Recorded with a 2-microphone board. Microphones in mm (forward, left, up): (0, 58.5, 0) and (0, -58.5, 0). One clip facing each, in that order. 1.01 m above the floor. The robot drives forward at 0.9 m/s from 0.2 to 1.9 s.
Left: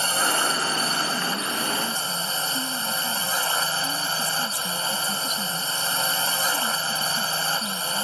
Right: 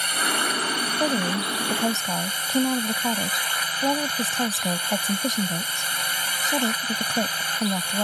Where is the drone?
30° left (ahead or behind).